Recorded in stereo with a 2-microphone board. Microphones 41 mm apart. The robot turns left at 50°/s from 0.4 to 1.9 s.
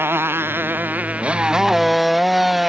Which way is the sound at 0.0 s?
70° right (ahead or behind).